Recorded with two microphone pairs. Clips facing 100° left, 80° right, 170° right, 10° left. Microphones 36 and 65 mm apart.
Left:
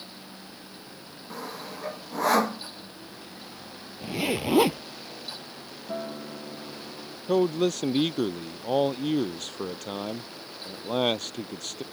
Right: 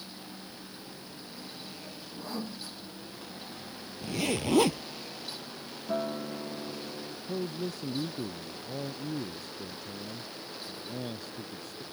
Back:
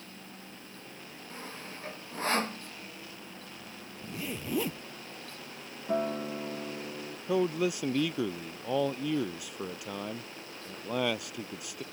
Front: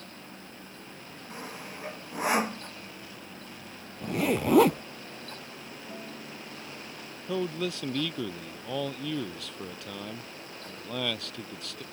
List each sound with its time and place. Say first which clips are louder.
1.3 s sawing: left 11 dB, front 3 dB; 85° left
4.0 s a zipper: left 3 dB, front 12 dB; 25° left
5.9 s a guitar: right 2 dB, back 14 dB; 160° right
7.3 s a man speaking: left 12 dB, back 3 dB; 115° left